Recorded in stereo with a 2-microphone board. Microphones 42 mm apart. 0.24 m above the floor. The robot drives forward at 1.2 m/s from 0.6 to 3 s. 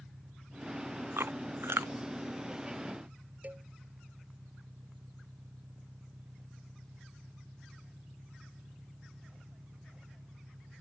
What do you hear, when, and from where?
0.0 s an engine running: 85° right; by 10.8 s 80° right
1.2 s chewing: 85° right
3.4 s a cowbell: 40° right (ahead or behind)